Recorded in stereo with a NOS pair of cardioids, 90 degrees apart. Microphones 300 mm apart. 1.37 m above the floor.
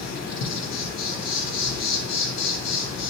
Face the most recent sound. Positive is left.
turn(degrees=55)